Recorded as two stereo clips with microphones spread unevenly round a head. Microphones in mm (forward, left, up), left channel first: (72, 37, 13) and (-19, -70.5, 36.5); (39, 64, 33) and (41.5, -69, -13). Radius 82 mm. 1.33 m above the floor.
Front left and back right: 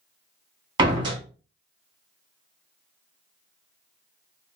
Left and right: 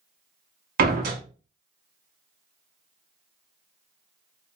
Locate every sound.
0.8 s a door slam: 75° right, 1.5 m